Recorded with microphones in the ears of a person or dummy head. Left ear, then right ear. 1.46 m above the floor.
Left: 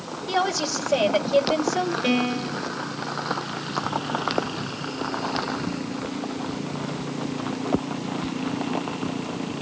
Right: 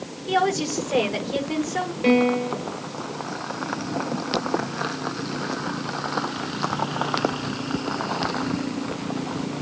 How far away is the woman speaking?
About 7 m.